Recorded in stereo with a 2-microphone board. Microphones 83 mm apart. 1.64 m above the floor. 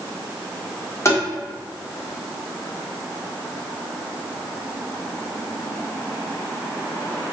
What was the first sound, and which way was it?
Tapping, 35° left (ahead or behind).